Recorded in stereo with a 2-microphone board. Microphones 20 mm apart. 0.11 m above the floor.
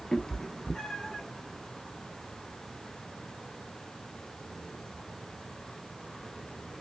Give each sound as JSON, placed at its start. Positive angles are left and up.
{"t": 0.1, "sound": "a cat meowing", "side_deg": 30, "distance_m": 1.1}